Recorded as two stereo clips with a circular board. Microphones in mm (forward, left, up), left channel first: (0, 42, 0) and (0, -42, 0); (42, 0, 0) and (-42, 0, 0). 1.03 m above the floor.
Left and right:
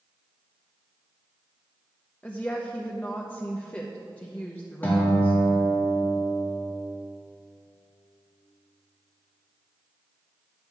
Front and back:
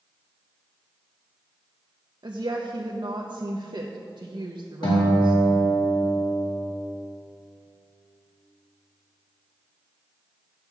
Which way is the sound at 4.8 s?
20° left.